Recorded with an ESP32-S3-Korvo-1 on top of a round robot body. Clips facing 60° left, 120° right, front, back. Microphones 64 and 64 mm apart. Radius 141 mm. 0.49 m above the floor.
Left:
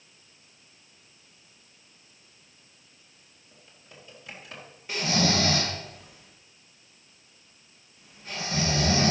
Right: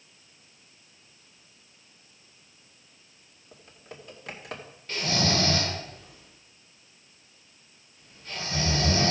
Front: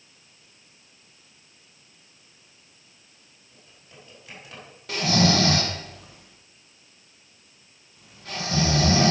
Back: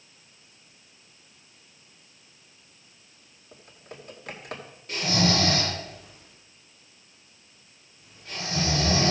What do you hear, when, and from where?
3.5 s typing on a keyboard: 145° right, 2 m
4.9 s snoring: 20° right, 2 m